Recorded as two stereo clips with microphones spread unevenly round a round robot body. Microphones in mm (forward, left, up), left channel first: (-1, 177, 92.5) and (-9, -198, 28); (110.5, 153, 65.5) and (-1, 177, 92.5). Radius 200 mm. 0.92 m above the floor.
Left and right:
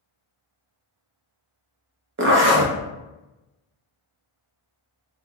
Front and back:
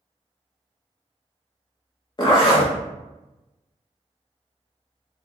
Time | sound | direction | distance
2.2 | a zipper | 45° right | 0.8 m